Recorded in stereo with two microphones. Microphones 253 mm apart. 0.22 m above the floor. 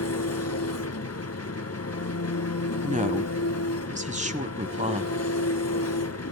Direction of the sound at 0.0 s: 75° left (ahead or behind).